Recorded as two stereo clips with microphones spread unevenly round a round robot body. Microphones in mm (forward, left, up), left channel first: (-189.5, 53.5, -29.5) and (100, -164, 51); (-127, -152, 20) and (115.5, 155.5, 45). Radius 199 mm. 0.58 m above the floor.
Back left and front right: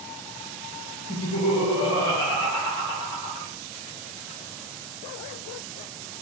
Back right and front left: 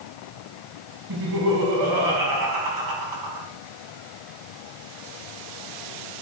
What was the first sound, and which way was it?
Laughter, 85° left.